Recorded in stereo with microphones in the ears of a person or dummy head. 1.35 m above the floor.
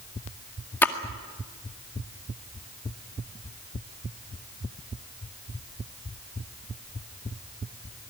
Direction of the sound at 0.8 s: 10° left (ahead or behind).